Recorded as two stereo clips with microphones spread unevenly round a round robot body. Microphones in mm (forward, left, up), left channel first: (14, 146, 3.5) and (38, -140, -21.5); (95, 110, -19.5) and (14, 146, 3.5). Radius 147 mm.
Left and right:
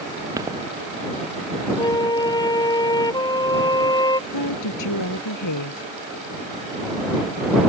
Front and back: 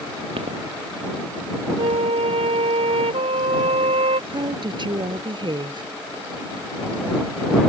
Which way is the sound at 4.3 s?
125° left.